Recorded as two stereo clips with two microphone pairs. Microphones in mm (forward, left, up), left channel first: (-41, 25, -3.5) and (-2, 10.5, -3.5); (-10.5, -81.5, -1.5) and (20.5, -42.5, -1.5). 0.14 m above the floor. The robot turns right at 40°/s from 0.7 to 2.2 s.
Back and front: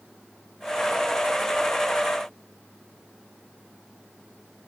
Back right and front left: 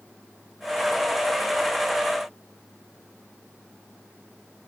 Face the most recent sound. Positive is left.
No sound to turn to.